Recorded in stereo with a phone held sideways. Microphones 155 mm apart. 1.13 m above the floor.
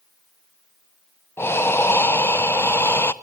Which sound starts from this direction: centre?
Breathing, at 1.4 s.